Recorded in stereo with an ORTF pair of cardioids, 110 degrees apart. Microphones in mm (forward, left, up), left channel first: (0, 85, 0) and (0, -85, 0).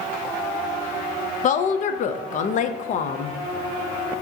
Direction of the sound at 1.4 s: 50° left.